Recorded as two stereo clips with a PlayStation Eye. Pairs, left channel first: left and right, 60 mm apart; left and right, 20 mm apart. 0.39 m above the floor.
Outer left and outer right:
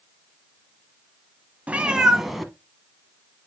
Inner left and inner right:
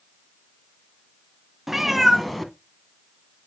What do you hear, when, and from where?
1.7 s a cat meowing: 25° right (ahead or behind), 0.7 m; by 3.5 s 15° left (ahead or behind), 1.4 m